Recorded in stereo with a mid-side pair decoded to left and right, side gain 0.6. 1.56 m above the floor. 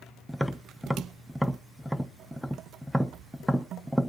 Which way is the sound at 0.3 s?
Straight ahead.